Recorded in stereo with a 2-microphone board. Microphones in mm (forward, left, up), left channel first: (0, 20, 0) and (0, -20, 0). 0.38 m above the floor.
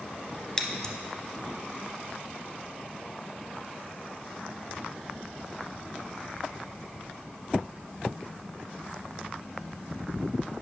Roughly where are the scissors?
Left.